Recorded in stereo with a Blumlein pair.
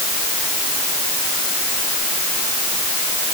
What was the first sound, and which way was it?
Only background noise.